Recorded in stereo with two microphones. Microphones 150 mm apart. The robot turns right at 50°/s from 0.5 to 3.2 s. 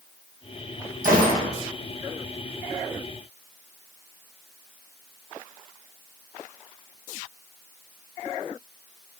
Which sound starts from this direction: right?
A gunshot, at 1.0 s.